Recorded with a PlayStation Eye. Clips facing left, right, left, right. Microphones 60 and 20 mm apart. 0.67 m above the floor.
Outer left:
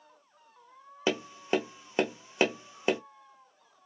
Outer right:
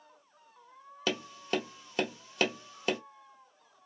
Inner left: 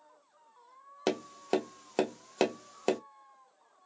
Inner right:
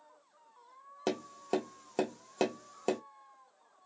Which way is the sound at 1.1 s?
25° left (ahead or behind).